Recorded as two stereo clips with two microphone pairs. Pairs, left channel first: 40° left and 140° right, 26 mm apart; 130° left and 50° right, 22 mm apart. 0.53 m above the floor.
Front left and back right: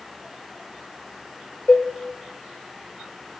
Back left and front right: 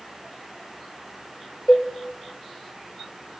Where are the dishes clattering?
90° left, 1.3 m.